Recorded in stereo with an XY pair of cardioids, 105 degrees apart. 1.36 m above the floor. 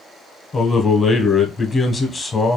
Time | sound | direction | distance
0.5 | a man speaking | 30° left | 0.6 m